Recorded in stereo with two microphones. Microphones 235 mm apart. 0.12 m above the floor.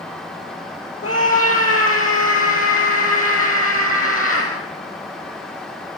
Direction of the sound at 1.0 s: 70° left (ahead or behind).